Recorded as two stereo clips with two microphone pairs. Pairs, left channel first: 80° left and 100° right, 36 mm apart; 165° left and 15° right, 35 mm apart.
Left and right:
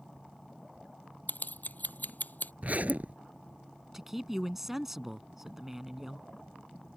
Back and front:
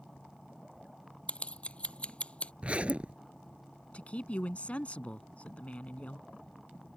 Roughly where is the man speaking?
Behind.